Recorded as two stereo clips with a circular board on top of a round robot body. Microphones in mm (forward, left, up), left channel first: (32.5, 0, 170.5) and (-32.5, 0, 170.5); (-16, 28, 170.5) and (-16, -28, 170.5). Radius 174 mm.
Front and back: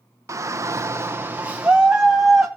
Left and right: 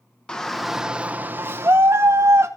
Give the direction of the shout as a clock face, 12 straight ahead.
7 o'clock.